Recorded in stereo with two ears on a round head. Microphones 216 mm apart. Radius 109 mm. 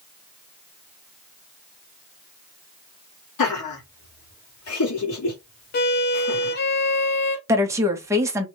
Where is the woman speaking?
10° right (ahead or behind), 0.8 m.